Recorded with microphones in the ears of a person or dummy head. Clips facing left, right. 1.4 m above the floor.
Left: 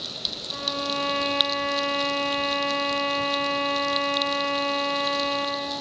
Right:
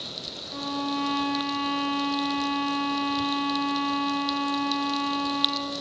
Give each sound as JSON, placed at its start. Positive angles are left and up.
{"t": 0.5, "sound": "a violin", "side_deg": -45, "distance_m": 1.2}